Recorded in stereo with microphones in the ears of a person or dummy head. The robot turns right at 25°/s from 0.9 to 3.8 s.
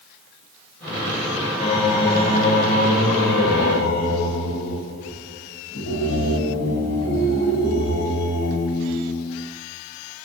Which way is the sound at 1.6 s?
40° left.